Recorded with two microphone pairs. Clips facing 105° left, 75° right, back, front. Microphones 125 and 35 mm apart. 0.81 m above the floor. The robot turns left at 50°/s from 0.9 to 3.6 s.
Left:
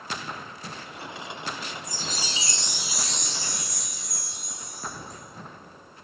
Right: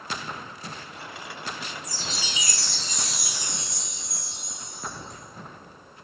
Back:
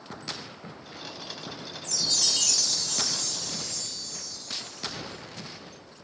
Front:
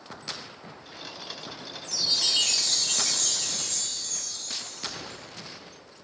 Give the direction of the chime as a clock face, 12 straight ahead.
10 o'clock.